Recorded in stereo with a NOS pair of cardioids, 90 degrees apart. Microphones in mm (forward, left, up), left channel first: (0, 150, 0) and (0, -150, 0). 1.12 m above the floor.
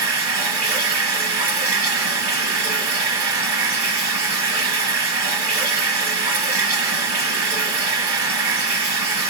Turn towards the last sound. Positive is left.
turn(degrees=-60)